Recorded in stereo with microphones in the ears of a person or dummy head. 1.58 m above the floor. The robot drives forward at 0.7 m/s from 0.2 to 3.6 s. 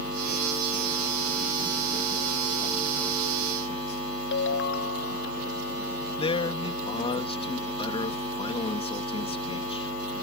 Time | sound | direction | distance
4.3 | a ringtone | 70° left (ahead or behind) | ?
6.2 | a man speaking | 30° left (ahead or behind) | ?